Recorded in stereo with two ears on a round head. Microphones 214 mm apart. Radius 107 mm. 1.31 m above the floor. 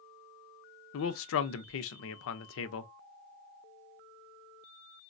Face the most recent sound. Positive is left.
turn(degrees=60)  # may be behind; listen again after turning